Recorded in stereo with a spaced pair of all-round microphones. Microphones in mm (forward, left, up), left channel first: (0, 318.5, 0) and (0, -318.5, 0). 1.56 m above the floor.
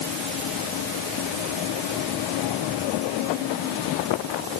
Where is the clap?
No clap in this recording.